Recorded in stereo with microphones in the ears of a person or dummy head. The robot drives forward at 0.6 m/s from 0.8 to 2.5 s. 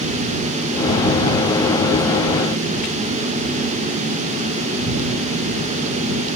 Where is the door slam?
No door slam in this recording.